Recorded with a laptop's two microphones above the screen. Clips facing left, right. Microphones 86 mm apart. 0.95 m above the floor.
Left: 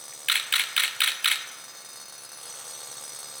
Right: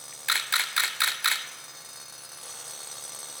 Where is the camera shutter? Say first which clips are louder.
Right 1 dB; 20° right (ahead or behind), 0.6 m.